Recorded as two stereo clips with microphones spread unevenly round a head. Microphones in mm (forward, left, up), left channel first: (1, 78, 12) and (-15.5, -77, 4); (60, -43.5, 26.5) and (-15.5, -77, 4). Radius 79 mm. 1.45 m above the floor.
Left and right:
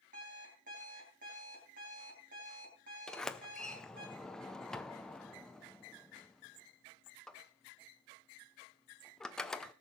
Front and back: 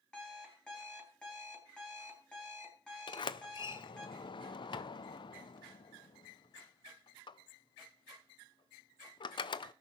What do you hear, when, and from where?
0.1 s an alarm clock: 55° right, 4.5 m
3.1 s a sliding door: straight ahead, 0.6 m